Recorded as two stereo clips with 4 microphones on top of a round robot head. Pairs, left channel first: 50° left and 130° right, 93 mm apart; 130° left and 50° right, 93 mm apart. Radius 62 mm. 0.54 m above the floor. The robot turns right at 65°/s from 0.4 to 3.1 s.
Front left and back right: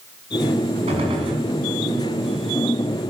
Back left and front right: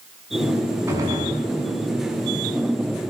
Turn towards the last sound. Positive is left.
turn(degrees=30)